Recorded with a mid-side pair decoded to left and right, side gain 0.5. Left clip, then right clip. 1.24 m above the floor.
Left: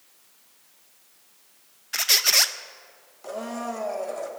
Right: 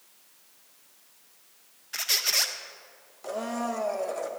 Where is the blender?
10° right, 1.5 m.